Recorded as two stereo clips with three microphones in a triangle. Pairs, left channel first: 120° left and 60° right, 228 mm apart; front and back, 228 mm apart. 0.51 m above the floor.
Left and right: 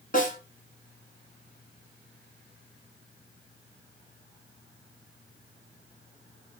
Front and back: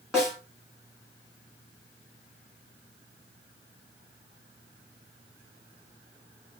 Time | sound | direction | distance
0.1 | a snare drum | 95° left | 1.1 m